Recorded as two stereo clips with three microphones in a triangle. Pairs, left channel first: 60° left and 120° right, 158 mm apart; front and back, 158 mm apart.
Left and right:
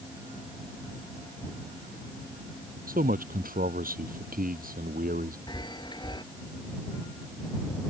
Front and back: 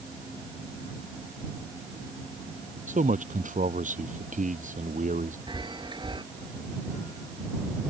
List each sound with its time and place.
2.9 s a man speaking: 145° right
5.5 s a chime: 120° left